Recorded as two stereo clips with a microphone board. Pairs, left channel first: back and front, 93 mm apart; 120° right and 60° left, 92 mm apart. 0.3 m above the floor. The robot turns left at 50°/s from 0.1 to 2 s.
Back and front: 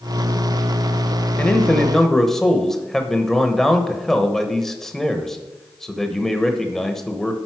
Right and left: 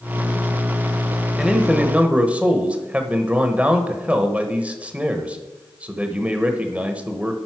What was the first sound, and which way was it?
A man speaking, 135° left.